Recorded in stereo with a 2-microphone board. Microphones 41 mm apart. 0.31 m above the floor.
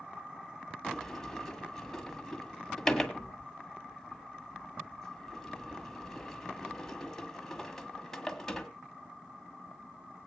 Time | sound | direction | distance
0.8 | a sliding door | 10° left (ahead or behind) | 1.7 m